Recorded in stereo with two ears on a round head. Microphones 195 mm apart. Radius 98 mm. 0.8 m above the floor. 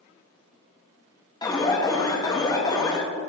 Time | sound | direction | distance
1.4 | an alarm | 20° left (ahead or behind) | 0.7 m